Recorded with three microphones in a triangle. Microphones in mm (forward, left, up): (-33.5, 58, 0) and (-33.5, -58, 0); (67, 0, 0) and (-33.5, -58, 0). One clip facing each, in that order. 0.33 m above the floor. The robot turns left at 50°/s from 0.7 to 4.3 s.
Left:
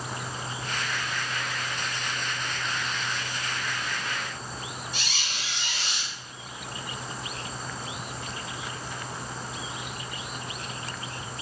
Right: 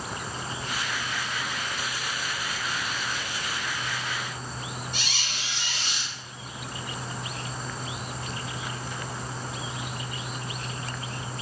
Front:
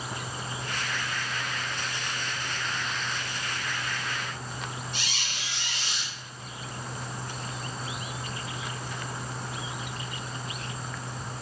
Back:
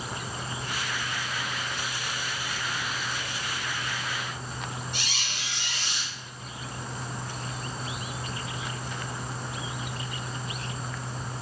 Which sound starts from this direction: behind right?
A squeak, at 4.9 s.